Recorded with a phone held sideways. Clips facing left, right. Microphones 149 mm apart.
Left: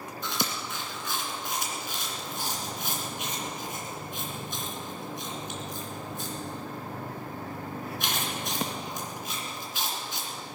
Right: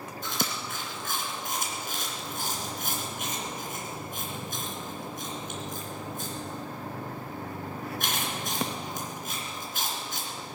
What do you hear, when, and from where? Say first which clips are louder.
0.2 s chewing: even; 50° right (ahead or behind), 2.5 m